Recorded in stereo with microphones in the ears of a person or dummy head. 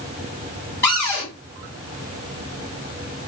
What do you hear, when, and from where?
0.8 s a cupboard door: 10° left (ahead or behind), 2 m